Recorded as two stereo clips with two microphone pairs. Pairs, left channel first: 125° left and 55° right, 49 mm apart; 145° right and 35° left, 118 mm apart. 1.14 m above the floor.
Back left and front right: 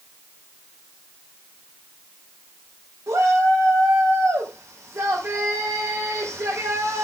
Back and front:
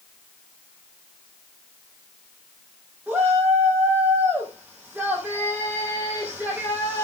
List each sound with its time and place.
3.1 s a shout: 50° right, 5 m